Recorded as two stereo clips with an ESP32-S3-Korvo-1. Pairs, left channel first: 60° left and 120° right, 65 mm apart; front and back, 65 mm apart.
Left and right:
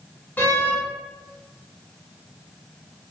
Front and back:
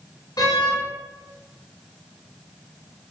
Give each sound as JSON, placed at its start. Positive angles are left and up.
{"t": 0.4, "sound": "a door slam", "azimuth_deg": 0, "distance_m": 3.0}